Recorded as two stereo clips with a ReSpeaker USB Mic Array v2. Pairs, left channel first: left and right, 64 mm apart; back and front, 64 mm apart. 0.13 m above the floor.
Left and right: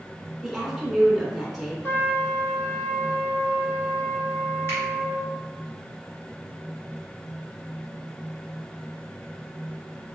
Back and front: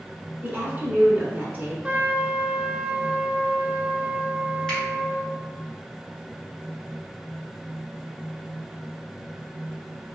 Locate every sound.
0.4 s a woman speaking: 5° right, 1.3 m
1.8 s a trumpet: 60° left, 0.6 m
4.7 s a finger snap: 105° left, 1.7 m